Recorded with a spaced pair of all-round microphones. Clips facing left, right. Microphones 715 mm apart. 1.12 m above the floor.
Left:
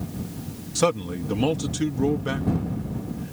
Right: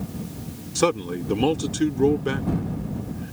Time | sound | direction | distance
0.8 | a man speaking | 20° left (ahead or behind) | ?